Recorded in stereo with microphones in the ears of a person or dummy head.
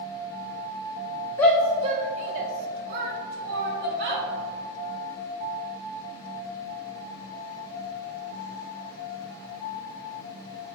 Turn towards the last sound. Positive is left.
turn(degrees=-65)  # may be behind; listen again after turning